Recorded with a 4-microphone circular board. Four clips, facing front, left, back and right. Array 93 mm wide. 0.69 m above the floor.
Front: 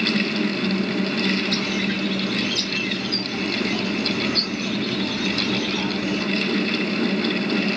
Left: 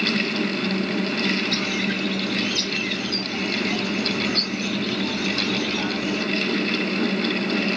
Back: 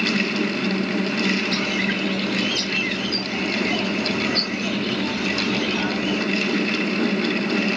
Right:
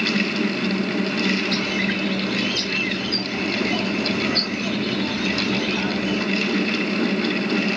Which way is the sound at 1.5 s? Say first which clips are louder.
Right 2 dB, back 1 dB; 145° right.